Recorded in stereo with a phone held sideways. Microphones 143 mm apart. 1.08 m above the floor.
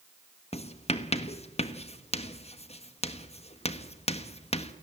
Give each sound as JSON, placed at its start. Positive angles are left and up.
{"t": 0.5, "sound": "writing", "side_deg": 45, "distance_m": 1.1}